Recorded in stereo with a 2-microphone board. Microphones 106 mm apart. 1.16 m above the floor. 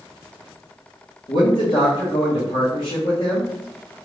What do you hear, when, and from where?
1.3 s a man speaking: 60° left (ahead or behind), 1.3 m